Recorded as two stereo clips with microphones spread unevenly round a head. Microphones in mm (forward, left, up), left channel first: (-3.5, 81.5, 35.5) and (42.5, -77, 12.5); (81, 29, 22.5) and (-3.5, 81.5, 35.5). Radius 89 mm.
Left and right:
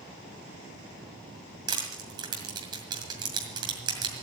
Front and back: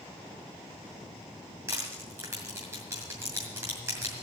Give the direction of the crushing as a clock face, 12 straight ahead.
5 o'clock.